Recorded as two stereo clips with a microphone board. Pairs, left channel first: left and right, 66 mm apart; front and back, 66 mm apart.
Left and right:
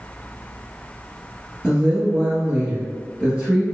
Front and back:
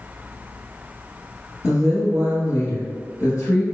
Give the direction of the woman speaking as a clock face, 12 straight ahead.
1 o'clock.